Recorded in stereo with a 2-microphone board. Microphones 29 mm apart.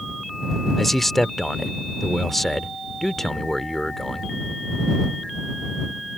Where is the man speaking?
5° left (ahead or behind).